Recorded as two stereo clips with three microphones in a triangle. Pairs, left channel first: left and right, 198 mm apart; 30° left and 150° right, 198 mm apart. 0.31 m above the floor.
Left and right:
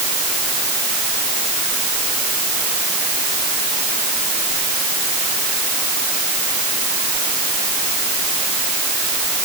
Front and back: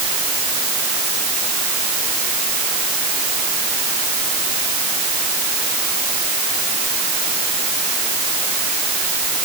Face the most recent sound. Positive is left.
No sound to turn to.